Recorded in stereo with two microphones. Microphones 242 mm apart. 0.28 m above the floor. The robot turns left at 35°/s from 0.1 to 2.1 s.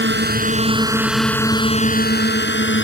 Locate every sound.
0.0 s a drone: 50° right (ahead or behind); by 2.9 s 50° left (ahead or behind)